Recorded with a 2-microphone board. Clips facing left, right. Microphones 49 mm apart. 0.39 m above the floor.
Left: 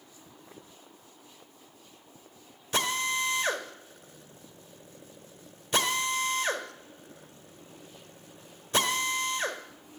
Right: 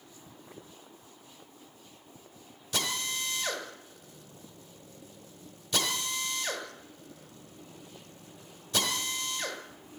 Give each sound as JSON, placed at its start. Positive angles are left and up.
{"t": 2.7, "sound": "a drill", "side_deg": 35, "distance_m": 1.5}